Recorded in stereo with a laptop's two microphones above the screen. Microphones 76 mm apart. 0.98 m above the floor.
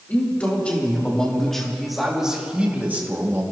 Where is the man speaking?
20° left (ahead or behind), 3 m; by 3.4 s 35° right (ahead or behind), 1.8 m.